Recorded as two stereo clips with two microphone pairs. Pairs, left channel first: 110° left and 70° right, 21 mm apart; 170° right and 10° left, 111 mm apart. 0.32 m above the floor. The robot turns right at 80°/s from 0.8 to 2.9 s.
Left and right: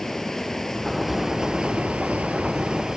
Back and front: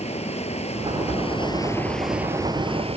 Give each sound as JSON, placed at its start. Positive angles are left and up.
{"t": 0.0, "sound": "running water", "azimuth_deg": 180}